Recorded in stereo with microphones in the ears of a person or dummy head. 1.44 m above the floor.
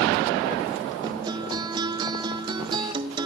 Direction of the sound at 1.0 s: 25° right (ahead or behind).